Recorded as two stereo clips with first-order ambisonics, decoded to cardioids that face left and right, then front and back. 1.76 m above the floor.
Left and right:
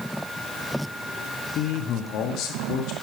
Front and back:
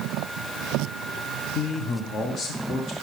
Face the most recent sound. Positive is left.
turn(degrees=60)